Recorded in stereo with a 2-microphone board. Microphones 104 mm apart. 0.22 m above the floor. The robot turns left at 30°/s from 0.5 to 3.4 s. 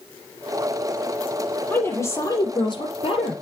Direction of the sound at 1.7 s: 165° left.